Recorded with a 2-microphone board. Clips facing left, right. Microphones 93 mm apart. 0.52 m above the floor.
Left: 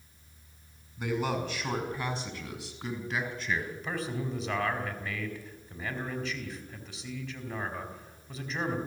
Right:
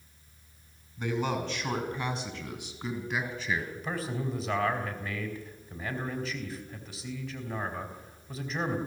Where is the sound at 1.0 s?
10° left (ahead or behind), 5.5 m; by 3.6 s 5° right (ahead or behind), 4.5 m.